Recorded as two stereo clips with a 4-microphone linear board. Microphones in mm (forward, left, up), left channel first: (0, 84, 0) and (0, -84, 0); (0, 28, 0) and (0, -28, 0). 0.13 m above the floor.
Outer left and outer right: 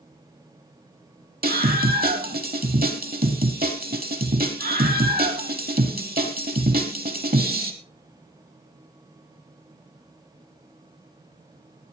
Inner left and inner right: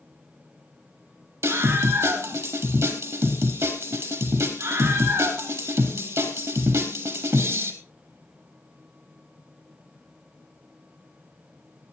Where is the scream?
65° right (ahead or behind), 3.5 m.